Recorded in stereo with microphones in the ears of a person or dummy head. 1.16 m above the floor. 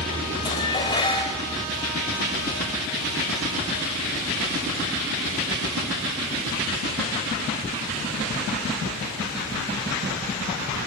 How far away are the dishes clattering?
About 4 m.